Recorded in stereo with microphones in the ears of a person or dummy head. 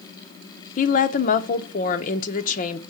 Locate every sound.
0.8 s a woman speaking: 35° left (ahead or behind), 0.7 m